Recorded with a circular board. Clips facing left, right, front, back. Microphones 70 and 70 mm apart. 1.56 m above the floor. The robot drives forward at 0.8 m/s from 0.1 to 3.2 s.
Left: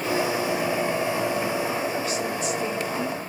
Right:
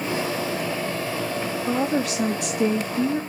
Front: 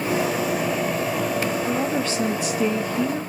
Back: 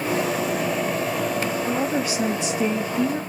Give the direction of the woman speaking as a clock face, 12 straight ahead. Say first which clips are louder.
Right 3 dB, even; 3 o'clock.